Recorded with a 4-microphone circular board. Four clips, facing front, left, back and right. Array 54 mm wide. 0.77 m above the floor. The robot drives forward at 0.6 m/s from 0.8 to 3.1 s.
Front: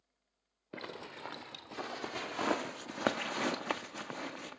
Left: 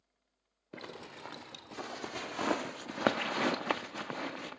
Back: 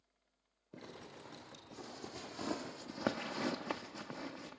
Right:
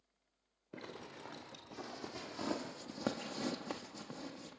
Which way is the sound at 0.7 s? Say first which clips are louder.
Left 3 dB, front 7 dB; 20° left.